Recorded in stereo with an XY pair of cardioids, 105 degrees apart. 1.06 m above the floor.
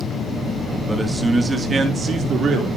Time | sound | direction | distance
0.9 | a man speaking | 10° right | 1.9 m